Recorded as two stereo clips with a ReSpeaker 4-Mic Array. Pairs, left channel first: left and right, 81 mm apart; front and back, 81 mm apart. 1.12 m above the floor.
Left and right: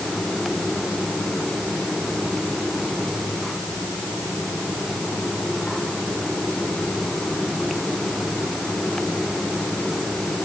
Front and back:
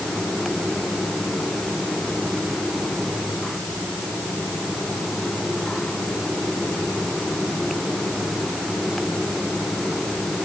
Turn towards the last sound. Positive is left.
No sound to turn to.